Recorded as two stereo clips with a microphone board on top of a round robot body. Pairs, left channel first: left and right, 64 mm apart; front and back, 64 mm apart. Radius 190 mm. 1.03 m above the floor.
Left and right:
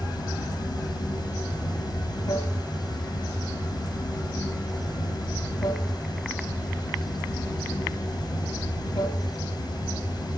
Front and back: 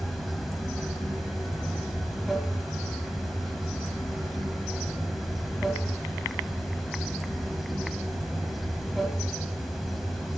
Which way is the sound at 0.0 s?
90° left.